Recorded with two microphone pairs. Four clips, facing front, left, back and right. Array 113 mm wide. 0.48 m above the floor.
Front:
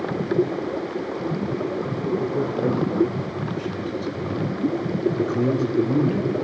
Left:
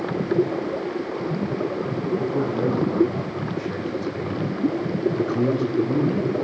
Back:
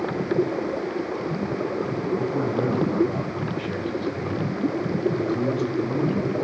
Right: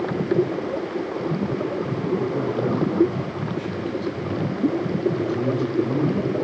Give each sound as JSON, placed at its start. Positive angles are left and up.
{"t": 2.2, "sound": "a man speaking", "azimuth_deg": 160, "distance_m": 4.0}